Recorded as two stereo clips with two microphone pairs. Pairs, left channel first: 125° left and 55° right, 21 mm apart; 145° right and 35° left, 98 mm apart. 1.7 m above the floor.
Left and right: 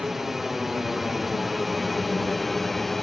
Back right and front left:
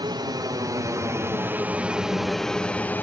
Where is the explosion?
I don't hear an explosion.